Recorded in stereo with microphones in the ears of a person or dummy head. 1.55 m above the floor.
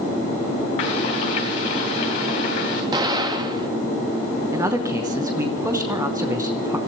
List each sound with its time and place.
0.8 s frying: 40° left (ahead or behind), 2.5 m
2.9 s an explosion: 20° right (ahead or behind), 2.0 m
4.5 s a man speaking: 20° right (ahead or behind), 0.8 m